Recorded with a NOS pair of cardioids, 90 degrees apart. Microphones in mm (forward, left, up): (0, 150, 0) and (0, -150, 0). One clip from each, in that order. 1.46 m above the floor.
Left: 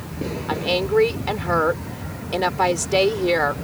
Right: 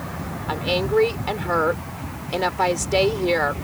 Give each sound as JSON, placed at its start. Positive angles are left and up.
{"t": 0.5, "sound": "a woman speaking", "azimuth_deg": 10}